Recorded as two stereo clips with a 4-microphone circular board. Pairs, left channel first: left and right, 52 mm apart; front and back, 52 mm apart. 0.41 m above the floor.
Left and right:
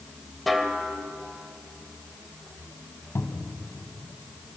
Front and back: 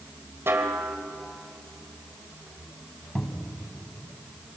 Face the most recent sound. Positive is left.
turn(degrees=80)